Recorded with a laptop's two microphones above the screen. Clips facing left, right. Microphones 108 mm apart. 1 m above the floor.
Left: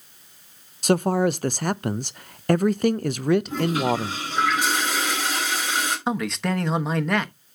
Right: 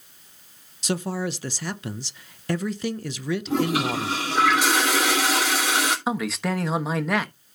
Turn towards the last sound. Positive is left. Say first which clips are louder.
# left 1 dB
turn(degrees=0)  # may be behind; listen again after turning